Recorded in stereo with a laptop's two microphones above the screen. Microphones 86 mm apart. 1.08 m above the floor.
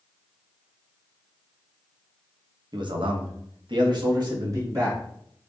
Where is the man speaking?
55° right (ahead or behind), 0.8 m; by 5.0 s 40° right (ahead or behind), 2 m.